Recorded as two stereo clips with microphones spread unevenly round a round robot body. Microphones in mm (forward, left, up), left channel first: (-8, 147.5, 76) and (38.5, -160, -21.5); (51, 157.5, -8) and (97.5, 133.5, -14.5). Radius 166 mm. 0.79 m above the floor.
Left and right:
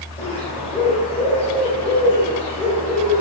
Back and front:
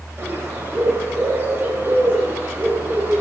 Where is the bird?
20° left, 4 m.